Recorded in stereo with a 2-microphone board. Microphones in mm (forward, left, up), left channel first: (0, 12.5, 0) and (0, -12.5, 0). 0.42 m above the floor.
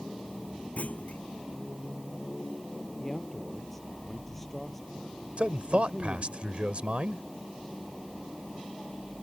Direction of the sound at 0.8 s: 70° left (ahead or behind).